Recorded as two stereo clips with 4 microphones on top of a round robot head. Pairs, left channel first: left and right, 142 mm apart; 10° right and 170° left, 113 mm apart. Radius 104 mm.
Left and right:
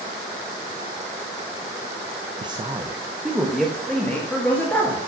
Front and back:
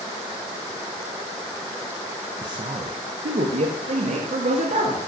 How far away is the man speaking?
About 0.8 m.